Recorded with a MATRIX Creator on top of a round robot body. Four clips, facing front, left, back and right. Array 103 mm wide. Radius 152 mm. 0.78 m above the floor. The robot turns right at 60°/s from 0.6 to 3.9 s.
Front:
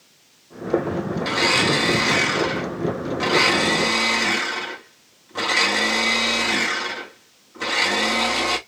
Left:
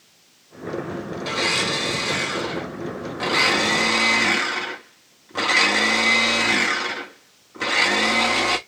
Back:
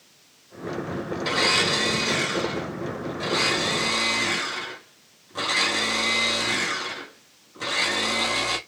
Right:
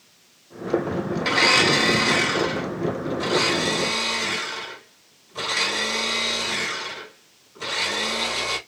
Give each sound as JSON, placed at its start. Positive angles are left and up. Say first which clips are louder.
{"t": 1.2, "sound": "a blender", "louder": "right 5 dB, front 3 dB", "azimuth_deg": -85, "distance_m": 1.5}